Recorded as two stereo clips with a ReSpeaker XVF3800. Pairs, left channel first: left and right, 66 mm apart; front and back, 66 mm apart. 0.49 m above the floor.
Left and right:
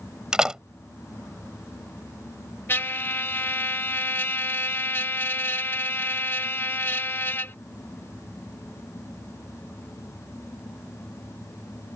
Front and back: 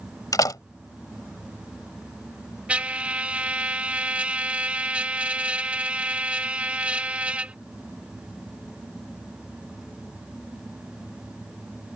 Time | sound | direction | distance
0.3 | a door slam | 15° right | ?
2.7 | a trumpet | 120° left | ?